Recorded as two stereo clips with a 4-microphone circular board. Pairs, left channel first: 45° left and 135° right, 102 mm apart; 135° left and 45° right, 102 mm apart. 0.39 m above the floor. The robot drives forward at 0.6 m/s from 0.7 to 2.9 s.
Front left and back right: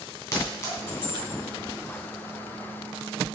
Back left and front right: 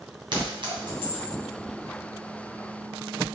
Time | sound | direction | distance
0.3 | a clink | 10° right | 2 m